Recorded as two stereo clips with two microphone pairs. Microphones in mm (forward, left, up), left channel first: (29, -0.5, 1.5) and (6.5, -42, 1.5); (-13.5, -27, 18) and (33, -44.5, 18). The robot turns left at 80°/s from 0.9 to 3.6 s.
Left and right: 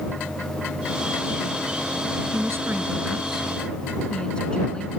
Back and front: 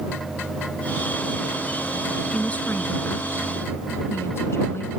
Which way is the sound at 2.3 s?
125° right.